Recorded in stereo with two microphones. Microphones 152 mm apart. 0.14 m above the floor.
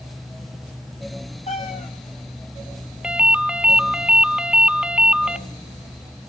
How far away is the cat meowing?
About 1.6 m.